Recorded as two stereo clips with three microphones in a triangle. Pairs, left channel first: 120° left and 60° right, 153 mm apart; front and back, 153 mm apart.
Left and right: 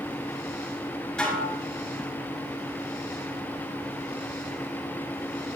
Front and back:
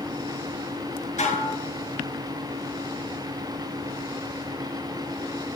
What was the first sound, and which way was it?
Dishes clattering, 40° left.